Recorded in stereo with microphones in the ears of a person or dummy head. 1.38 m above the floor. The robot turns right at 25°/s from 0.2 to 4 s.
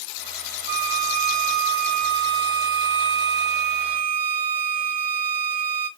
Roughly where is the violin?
Behind right.